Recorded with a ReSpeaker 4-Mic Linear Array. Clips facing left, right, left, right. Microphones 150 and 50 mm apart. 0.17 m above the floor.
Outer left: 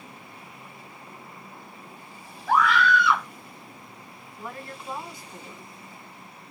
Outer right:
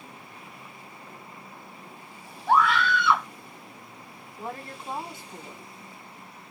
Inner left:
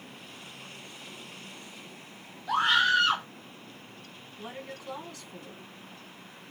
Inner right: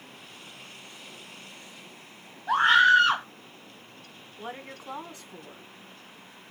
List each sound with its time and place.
2.5 s a scream: 30° right (ahead or behind), 2.5 m
4.4 s a woman speaking: 25° right (ahead or behind), 1.2 m